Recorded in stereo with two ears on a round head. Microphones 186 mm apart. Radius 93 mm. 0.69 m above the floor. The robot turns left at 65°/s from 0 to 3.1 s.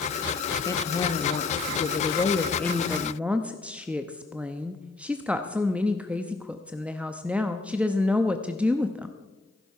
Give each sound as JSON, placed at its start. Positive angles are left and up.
{"t": 0.7, "sound": "a woman speaking", "side_deg": 15, "distance_m": 0.5}